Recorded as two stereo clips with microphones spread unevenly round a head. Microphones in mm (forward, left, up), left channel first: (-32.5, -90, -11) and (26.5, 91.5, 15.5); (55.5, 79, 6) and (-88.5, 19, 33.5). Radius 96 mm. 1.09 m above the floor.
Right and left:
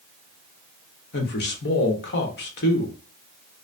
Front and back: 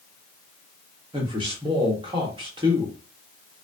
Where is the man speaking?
90° right, 1.0 m.